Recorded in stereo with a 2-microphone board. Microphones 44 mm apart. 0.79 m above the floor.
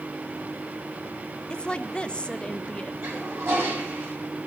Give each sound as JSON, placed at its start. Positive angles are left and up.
{"t": 1.5, "sound": "a woman speaking", "side_deg": 25, "distance_m": 0.7}
{"t": 3.0, "sound": "a toilet flushing", "side_deg": -65, "distance_m": 7.5}